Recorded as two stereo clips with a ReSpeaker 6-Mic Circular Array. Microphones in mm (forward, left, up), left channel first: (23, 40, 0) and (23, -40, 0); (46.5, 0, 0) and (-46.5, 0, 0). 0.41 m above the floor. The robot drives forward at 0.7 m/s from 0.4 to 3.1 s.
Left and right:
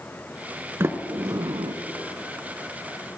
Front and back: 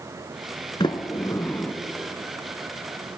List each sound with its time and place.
0.8 s a sliding door: 30° right, 0.9 m; by 1.7 s 80° right, 0.5 m